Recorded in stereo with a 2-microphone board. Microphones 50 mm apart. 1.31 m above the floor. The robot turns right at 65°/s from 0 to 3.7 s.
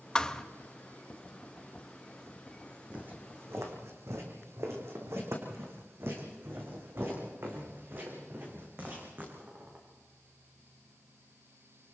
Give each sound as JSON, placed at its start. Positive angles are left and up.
{"t": 0.1, "sound": "a thud", "side_deg": 20, "distance_m": 0.6}
{"t": 2.9, "sound": "footsteps", "side_deg": -30, "distance_m": 4.0}